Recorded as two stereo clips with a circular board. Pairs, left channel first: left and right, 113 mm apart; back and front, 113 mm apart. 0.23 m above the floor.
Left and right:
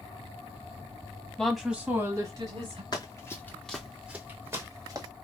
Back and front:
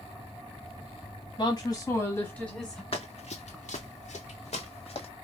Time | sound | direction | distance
1.4 | a woman speaking | 165° left | 1.5 m
2.9 | running footsteps | 145° left | 1.3 m